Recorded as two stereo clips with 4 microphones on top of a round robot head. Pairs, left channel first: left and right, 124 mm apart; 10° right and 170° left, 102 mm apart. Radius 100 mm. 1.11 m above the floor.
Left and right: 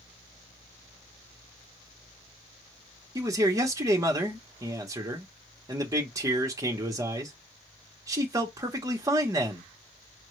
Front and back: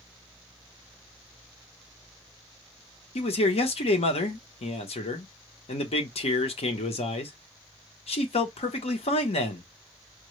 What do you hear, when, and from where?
3.1 s a man speaking: 25° right, 1.1 m